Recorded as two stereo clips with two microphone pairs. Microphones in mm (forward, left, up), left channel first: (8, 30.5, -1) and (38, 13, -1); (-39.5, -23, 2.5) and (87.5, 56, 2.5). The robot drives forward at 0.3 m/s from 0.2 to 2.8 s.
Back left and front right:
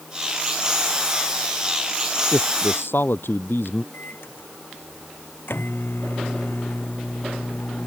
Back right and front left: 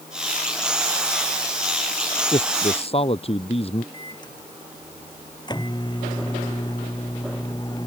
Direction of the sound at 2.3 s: 160° left.